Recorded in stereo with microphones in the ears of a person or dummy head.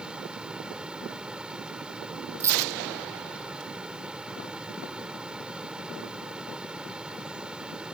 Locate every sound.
0.0 s a fan: 5° right (ahead or behind)
2.4 s a dropped coin: 20° right (ahead or behind)